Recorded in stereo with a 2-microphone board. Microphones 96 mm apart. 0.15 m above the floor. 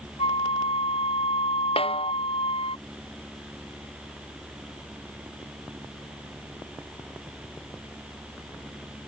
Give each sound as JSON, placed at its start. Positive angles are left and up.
{"t": 0.2, "sound": "a flute", "side_deg": 85}
{"t": 1.8, "sound": "a snare drum", "side_deg": 80}